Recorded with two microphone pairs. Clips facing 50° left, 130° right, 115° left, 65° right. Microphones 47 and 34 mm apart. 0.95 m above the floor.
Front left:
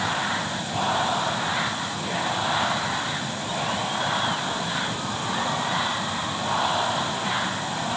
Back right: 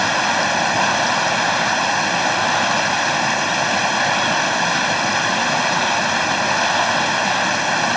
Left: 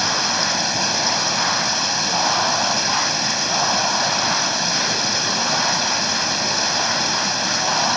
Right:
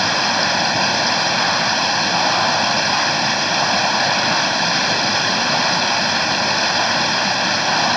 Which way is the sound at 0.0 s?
130° right.